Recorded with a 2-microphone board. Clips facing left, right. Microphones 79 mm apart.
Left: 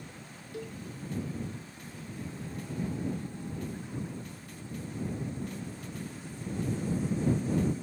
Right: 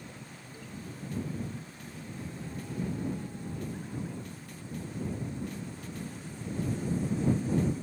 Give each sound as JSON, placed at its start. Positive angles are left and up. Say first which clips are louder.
{"t": 0.5, "sound": "a cowbell", "louder": "left 6 dB", "side_deg": 65}